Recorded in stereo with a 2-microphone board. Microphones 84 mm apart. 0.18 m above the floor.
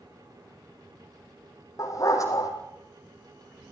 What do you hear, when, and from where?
1.8 s a dog barking: 40° left (ahead or behind), 3.5 m